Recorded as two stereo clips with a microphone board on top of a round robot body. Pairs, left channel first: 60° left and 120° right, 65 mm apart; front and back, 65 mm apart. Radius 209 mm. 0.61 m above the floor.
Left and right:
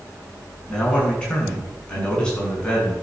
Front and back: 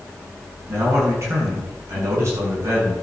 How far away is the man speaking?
About 7 m.